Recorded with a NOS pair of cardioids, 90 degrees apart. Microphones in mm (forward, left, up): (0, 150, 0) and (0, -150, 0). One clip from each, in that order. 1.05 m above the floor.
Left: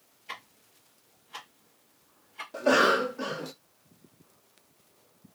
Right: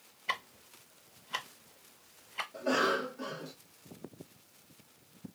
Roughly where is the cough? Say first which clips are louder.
Left 8 dB; ahead left.